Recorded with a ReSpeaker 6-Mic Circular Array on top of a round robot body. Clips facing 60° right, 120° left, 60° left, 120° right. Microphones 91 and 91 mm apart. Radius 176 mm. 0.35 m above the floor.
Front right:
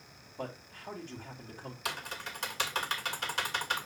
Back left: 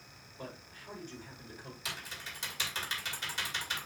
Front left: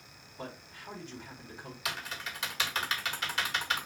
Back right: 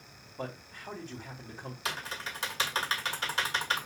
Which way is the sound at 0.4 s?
75° right.